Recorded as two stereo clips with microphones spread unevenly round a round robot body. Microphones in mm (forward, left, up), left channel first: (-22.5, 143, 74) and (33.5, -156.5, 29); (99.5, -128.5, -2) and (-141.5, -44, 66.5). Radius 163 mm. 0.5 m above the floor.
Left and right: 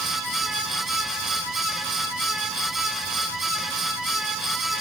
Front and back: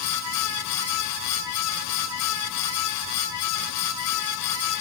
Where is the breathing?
No breathing in this recording.